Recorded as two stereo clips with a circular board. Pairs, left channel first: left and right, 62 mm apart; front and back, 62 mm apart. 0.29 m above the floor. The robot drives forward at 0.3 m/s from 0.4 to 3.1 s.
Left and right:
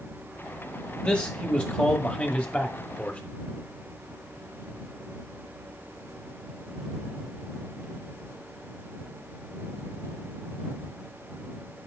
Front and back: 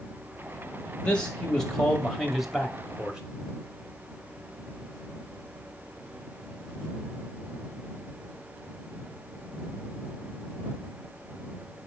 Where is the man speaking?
50° left, 1.1 m; by 3.2 s 120° left, 1.0 m.